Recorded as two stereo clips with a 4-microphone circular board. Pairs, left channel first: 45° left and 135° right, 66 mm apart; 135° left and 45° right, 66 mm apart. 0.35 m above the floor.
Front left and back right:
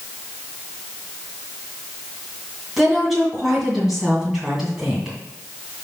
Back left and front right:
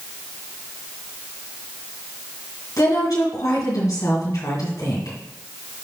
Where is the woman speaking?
140° left, 2.5 m.